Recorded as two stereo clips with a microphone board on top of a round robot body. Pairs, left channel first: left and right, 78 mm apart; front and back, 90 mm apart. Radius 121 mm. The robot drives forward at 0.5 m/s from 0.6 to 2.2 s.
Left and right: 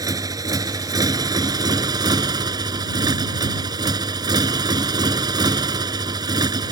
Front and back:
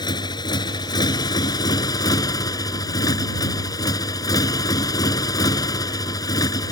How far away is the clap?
No clap in this recording.